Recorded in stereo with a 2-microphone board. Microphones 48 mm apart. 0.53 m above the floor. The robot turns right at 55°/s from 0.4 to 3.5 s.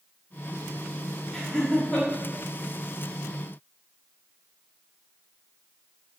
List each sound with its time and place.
1.3 s laughter: 20° left (ahead or behind), 0.6 m; by 2.1 s 25° left (ahead or behind), 0.6 m